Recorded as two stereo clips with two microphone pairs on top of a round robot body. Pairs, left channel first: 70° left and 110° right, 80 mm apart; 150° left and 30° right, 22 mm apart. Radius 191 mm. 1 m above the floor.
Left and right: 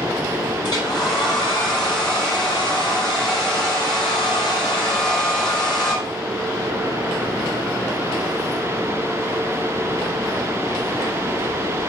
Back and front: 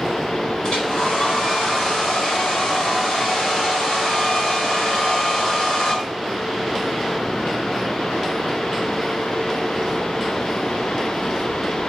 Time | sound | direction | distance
0.6 | a hair dryer | 100° left | 4.5 m